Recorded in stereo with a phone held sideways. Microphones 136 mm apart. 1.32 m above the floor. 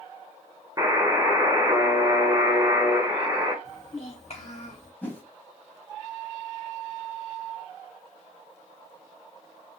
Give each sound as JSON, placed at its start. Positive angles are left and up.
{"t": 0.8, "sound": "a buzzer", "side_deg": -25, "distance_m": 0.8}
{"t": 3.6, "sound": "a child speaking", "side_deg": 50, "distance_m": 1.6}
{"t": 5.0, "sound": "a whoosh", "side_deg": 10, "distance_m": 1.3}